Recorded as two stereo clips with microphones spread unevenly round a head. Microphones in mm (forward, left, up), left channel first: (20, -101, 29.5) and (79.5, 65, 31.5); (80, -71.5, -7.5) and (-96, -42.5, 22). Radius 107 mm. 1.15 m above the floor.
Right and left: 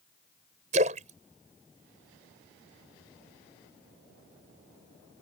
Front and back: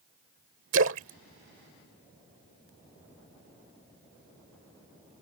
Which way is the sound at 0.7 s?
130° left.